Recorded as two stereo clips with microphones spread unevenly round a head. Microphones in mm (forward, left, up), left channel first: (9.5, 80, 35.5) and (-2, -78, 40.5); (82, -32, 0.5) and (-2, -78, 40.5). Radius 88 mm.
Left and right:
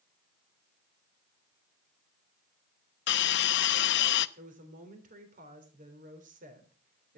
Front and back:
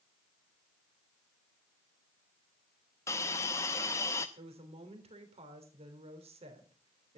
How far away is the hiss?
About 0.6 m.